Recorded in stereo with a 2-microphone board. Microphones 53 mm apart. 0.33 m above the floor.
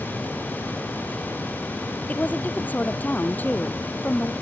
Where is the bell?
No bell in this recording.